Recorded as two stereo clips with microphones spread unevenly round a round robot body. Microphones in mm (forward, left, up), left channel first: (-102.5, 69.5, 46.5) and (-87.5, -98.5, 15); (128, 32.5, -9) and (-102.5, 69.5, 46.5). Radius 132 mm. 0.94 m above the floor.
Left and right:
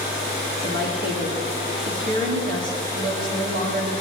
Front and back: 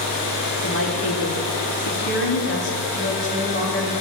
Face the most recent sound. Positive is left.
turn(degrees=-50)